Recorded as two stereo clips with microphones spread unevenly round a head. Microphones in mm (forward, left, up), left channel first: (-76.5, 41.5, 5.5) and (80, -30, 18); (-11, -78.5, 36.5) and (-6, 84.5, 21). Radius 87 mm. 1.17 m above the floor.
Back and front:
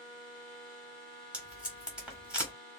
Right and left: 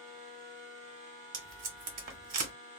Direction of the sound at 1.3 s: 60° left.